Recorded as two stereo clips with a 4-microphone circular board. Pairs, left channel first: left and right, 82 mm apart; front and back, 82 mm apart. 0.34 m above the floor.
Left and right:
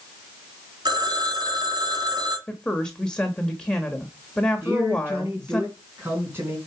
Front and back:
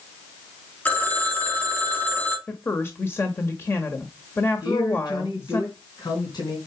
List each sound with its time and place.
0.8 s a phone ringing: 70° right, 1.7 m
2.5 s a woman speaking: 20° left, 1.3 m
4.6 s a man speaking: 30° right, 3.5 m